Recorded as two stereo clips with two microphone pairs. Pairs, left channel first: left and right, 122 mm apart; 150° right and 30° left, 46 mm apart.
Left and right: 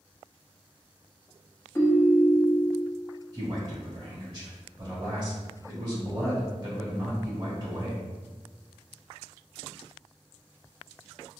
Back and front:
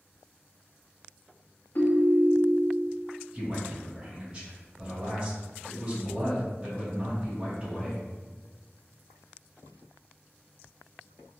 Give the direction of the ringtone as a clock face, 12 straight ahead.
7 o'clock.